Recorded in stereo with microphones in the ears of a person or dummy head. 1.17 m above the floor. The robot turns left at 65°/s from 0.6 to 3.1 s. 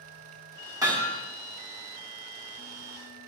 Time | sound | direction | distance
0.8 | hammering | 20° right (ahead or behind) | 2.5 m